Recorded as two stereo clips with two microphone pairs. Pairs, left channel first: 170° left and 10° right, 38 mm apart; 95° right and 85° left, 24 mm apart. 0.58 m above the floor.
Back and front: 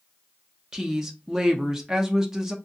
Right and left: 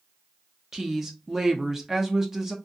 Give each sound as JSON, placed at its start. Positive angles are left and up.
{"t": 0.7, "sound": "a woman speaking", "azimuth_deg": 35, "distance_m": 0.6}